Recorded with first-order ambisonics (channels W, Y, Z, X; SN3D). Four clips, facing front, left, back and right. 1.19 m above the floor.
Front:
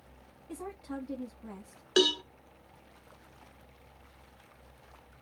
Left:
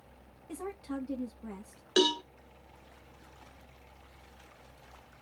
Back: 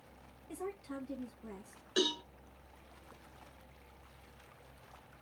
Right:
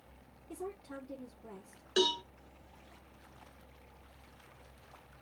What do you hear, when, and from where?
0.5 s a woman speaking: 75° left, 2 m
2.0 s a cowbell: 40° left, 1.3 m